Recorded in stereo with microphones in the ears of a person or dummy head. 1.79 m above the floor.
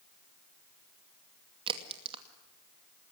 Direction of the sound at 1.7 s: 30° right (ahead or behind).